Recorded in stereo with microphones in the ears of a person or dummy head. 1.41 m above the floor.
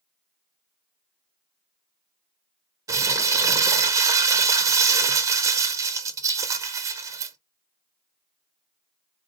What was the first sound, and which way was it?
Crumpling, 20° right (ahead or behind).